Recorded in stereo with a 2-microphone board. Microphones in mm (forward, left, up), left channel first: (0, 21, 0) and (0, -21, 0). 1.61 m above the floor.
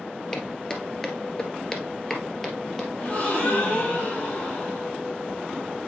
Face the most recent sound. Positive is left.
turn(degrees=30)  # may be behind; listen again after turning